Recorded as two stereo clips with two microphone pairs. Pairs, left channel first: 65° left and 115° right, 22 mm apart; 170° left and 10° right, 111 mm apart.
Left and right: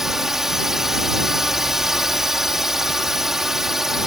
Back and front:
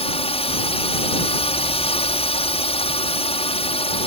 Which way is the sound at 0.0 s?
175° left.